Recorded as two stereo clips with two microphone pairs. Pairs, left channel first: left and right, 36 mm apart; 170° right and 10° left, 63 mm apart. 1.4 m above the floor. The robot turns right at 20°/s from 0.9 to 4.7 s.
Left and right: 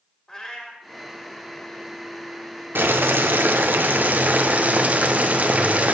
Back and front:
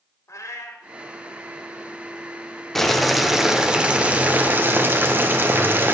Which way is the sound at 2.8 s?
80° right.